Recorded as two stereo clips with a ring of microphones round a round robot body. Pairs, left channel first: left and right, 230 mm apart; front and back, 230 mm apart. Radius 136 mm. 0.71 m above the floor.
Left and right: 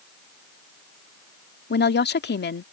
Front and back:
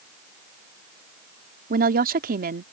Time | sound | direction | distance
1.7 | a woman speaking | 130° left | ?